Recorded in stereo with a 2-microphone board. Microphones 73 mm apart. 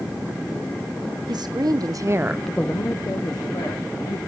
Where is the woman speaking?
70° right (ahead or behind), 1.4 m; by 4.2 s 75° left (ahead or behind), 2 m.